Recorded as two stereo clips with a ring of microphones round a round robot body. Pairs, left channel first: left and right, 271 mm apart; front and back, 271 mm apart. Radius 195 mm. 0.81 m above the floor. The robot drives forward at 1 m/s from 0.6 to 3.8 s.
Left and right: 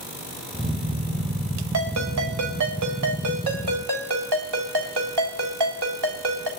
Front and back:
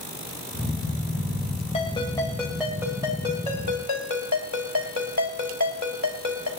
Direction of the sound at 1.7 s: 75° right.